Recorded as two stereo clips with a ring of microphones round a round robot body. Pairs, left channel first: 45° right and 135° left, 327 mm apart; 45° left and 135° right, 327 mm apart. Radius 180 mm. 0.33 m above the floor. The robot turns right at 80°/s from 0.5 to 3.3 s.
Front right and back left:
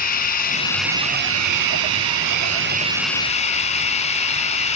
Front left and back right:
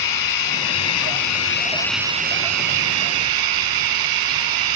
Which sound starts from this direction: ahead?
Running water, at 0.0 s.